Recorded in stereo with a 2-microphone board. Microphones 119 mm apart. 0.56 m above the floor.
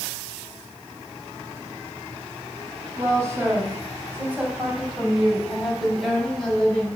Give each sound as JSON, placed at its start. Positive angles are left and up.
{"t": 3.0, "sound": "a woman speaking", "side_deg": -25, "distance_m": 3.0}